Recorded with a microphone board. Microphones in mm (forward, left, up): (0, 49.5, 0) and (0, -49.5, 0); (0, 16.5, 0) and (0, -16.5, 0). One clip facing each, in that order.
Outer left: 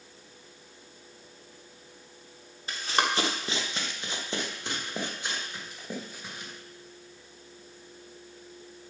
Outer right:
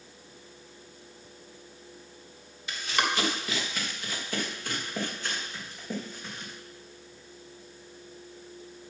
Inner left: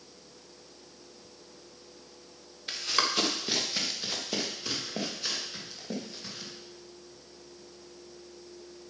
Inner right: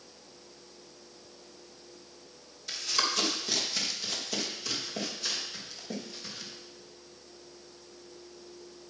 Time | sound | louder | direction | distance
2.7 | running footsteps | outer left 1 dB, inner left 2 dB | 40° left (ahead or behind) | 2.5 m